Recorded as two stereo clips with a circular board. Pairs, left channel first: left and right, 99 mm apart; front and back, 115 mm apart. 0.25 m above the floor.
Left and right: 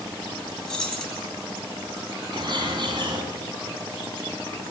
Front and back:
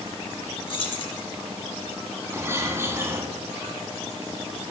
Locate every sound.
0.7 s keys jangling: 10° left, 1.2 m
2.3 s a bird: 115° right, 1.2 m